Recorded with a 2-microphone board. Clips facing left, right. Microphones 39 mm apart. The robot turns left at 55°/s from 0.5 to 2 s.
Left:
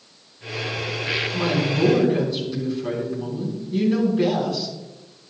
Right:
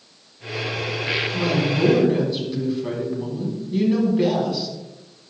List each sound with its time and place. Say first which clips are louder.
1.3 s a woman speaking: even; 30° left, 3.5 m; by 4.8 s 5° right, 3.5 m